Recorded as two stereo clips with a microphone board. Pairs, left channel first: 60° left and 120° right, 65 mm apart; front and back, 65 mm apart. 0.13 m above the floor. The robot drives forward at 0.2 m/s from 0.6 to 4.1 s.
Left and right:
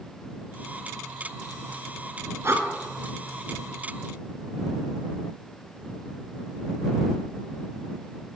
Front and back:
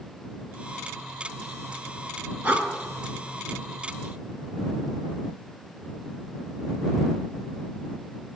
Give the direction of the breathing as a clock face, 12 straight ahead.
4 o'clock.